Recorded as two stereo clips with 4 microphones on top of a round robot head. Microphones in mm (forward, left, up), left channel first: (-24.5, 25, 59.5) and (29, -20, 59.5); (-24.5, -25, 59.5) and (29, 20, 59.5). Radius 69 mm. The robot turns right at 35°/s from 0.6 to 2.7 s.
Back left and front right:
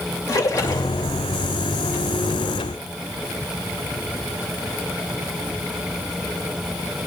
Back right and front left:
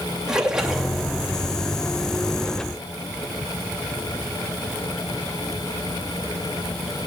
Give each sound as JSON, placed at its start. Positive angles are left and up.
{"t": 0.3, "sound": "a splash", "azimuth_deg": 120, "distance_m": 2.5}